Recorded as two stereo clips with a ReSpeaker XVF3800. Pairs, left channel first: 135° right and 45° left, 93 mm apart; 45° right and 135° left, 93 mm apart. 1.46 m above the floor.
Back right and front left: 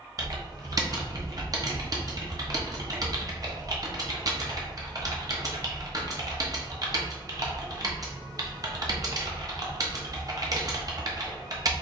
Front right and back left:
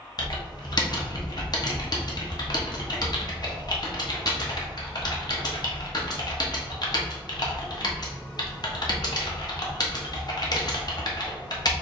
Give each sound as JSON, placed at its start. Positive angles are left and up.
{"t": 0.2, "sound": "typing on a keyboard", "azimuth_deg": 0, "distance_m": 0.8}